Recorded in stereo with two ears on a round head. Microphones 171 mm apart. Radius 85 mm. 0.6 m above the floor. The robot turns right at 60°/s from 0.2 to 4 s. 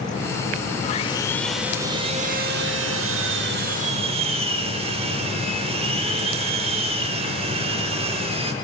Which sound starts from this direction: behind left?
Sawing, at 0.8 s.